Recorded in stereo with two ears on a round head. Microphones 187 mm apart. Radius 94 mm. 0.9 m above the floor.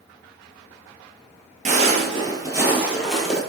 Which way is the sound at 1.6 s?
35° right (ahead or behind).